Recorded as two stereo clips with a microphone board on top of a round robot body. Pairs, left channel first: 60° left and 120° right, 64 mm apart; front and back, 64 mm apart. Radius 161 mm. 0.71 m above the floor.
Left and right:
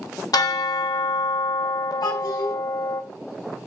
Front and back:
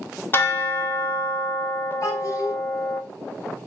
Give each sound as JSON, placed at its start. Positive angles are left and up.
{"t": 0.3, "sound": "a bell", "azimuth_deg": 55, "distance_m": 1.4}
{"t": 2.0, "sound": "a child speaking", "azimuth_deg": 40, "distance_m": 3.0}